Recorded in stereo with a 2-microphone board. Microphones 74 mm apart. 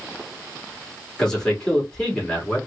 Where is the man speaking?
10° left (ahead or behind), 2.5 m.